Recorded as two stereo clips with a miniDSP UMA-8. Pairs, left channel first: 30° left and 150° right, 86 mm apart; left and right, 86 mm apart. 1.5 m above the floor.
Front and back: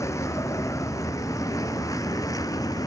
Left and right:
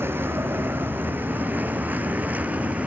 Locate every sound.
0.0 s a vehicle: 25° right; by 2.9 s 15° right